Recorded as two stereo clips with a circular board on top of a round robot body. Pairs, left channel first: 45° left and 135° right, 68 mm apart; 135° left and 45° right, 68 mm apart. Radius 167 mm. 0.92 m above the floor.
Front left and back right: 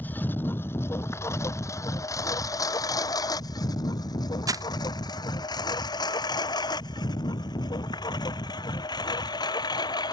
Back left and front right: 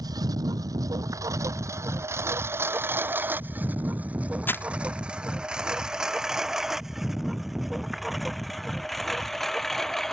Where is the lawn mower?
20° right; by 10.1 s 50° left.